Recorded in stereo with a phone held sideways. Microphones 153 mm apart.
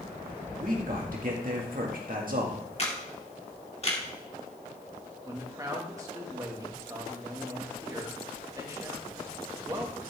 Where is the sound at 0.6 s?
65° right (ahead or behind), 2.0 m.